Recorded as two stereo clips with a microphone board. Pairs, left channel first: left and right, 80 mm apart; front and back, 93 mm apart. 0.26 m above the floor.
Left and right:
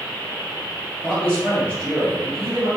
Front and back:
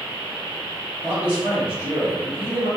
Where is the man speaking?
35° left, 1.6 m.